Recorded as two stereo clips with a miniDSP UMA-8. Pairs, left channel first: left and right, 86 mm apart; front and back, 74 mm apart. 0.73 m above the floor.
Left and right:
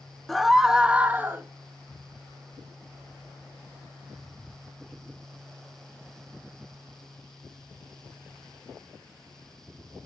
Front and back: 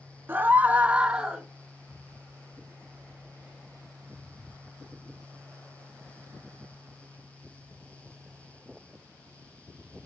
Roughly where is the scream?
Behind.